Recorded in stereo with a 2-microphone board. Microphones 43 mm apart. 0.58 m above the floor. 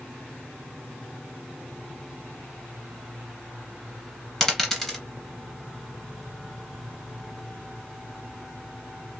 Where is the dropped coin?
5° left (ahead or behind), 1.4 m.